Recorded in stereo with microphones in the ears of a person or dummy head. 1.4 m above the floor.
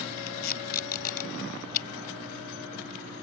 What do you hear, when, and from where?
0.3 s tape being pulled: 55° left (ahead or behind)